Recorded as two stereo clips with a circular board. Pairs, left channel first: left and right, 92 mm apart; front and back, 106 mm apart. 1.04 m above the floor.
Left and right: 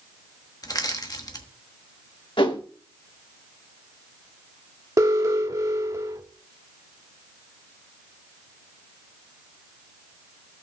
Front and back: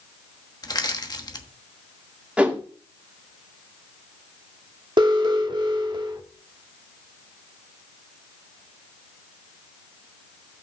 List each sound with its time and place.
0.6 s crushing: 45° left, 1.2 m
2.4 s a whoosh: 100° left, 1.9 m
5.0 s an alarm: 140° right, 1.4 m